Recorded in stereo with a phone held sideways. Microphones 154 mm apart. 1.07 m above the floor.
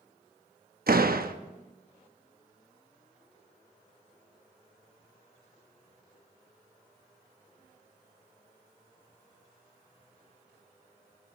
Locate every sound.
0.9 s a door slam: 75° right (ahead or behind), 0.8 m